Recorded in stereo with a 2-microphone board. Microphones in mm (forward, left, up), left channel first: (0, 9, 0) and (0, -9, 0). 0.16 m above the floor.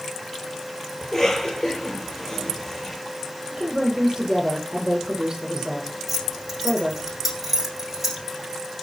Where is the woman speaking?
30° right (ahead or behind), 7 m.